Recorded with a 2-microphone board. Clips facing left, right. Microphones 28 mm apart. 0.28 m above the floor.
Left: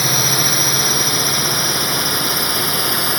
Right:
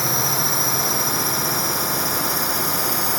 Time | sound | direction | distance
0.0 | a drone | 55° left (ahead or behind) | ?